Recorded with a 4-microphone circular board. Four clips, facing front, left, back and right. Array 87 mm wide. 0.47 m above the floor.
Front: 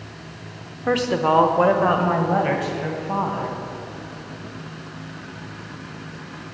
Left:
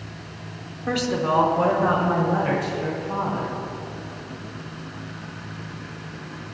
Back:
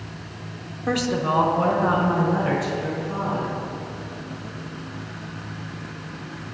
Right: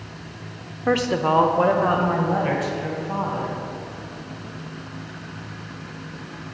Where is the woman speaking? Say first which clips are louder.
Right 3 dB, front 4 dB; 60° right, 0.9 m; by 3.6 s 10° right, 3 m.